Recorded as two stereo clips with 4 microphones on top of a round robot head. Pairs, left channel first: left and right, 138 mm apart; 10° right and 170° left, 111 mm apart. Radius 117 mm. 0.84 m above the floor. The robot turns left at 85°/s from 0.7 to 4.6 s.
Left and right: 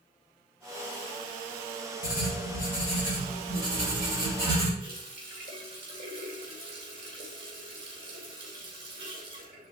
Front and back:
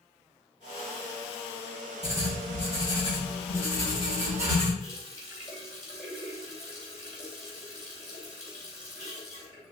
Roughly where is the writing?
Behind left.